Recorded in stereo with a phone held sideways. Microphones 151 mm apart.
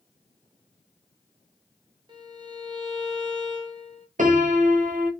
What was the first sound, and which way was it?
A violin, 30° right (ahead or behind).